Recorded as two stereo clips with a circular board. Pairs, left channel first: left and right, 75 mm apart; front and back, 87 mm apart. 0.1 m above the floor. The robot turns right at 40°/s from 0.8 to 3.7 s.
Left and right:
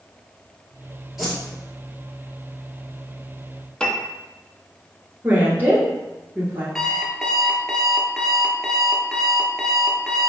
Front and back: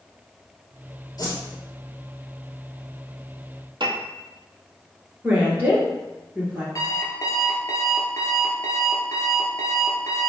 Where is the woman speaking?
130° right, 1.3 m.